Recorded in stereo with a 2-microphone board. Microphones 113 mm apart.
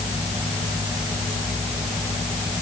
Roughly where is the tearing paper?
I don't hear tearing paper.